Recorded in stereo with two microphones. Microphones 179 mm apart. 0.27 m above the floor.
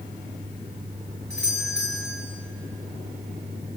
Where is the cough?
No cough in this recording.